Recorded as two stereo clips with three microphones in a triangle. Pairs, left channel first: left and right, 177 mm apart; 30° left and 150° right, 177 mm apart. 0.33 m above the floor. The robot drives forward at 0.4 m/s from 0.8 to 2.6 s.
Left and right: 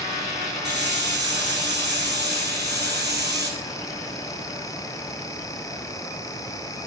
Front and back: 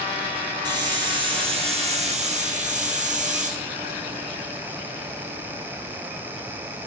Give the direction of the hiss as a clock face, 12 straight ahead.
3 o'clock.